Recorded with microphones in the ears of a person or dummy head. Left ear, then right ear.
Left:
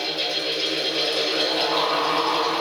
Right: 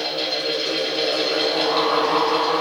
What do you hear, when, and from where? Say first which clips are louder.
0.0 s a fan: right 1 dB; centre (ahead or behind), 1.8 m